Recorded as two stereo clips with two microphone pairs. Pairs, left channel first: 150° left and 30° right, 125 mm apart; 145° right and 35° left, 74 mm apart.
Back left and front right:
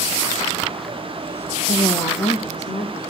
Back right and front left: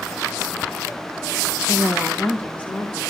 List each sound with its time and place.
1.7 s a woman speaking: 150° left, 1.1 m; by 3.0 s 145° left, 3 m